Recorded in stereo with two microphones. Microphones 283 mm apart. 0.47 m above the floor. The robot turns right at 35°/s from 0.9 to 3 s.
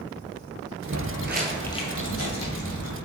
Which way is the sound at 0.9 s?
60° right (ahead or behind).